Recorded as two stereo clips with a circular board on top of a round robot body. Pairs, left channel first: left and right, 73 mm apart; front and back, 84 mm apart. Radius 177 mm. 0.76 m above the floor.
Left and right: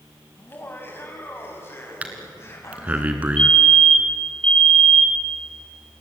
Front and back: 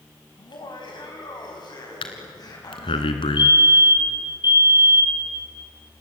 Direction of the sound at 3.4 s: 15° left.